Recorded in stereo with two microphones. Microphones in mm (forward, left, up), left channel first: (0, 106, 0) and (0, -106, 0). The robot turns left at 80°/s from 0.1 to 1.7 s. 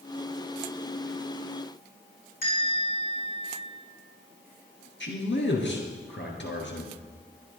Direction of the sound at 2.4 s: 45° left (ahead or behind).